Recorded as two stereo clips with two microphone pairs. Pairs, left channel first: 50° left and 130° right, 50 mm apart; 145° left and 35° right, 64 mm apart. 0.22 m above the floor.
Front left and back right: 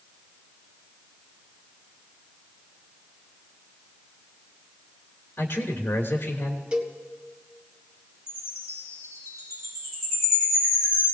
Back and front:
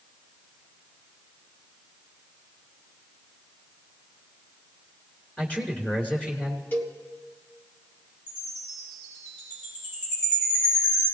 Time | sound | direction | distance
5.4 | a man speaking | 80° left | 3 m
6.7 | a cowbell | 175° left | 2.0 m
8.3 | a chime | 80° left | 9.5 m